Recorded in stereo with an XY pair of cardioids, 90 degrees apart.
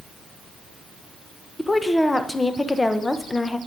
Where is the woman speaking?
20° left, 0.9 m.